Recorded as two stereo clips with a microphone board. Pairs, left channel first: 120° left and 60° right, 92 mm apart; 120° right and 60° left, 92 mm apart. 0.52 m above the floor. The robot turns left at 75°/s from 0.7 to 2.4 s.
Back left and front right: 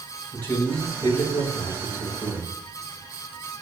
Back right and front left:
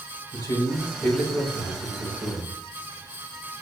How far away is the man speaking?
About 3 m.